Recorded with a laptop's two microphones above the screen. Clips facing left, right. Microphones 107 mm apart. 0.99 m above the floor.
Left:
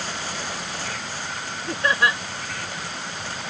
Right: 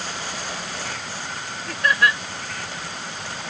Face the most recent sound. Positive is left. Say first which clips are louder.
# right 1 dB
turn(degrees=25)  # may be behind; listen again after turning